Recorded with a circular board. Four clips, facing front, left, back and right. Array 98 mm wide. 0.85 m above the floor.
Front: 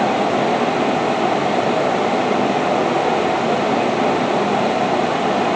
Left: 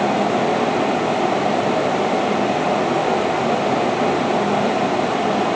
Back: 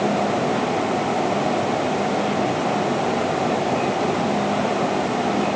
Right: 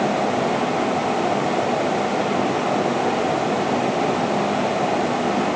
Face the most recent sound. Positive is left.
No sound to turn to.